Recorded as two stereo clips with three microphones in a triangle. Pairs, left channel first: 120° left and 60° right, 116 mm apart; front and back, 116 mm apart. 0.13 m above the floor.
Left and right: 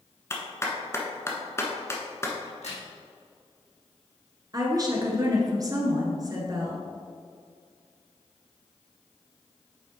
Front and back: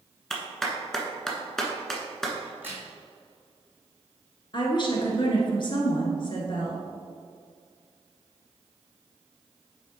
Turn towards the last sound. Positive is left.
turn(degrees=-20)